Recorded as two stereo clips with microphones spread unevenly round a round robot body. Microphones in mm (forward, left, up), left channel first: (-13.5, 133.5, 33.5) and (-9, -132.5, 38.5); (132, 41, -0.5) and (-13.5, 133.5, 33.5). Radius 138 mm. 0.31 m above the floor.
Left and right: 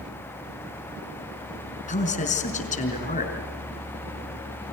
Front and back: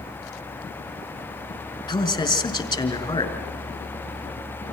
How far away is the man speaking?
About 4.5 m.